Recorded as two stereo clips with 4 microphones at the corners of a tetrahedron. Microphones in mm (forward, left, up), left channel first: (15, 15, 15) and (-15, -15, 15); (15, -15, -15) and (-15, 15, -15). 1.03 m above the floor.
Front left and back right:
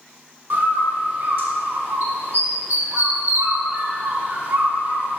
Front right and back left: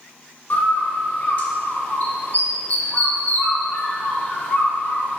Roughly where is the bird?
Right.